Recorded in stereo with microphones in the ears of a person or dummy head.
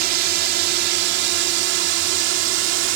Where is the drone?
55° right (ahead or behind); by 3.0 s 70° right (ahead or behind).